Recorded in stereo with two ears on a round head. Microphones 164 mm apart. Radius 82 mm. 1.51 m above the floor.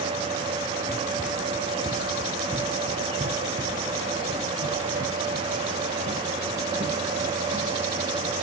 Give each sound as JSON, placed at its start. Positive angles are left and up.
{"t": 0.9, "sound": "running footsteps", "side_deg": 5, "distance_m": 1.6}